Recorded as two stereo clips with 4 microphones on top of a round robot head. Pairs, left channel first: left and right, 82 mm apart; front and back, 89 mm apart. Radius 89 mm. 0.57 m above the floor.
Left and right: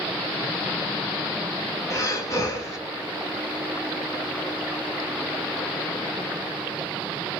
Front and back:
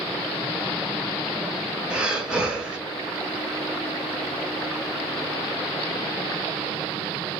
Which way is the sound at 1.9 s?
105° left.